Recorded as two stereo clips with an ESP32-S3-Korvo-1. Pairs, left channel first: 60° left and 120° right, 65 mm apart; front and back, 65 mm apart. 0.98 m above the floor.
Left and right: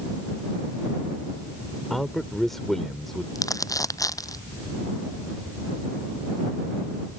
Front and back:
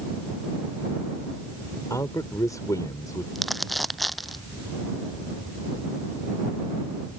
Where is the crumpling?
90° left.